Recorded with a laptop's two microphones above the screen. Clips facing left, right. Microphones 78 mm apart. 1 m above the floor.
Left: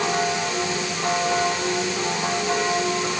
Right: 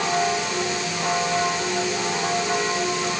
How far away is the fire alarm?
I don't hear a fire alarm.